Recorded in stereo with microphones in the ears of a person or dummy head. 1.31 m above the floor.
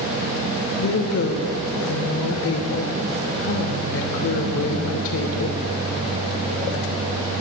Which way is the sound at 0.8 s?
70° left (ahead or behind).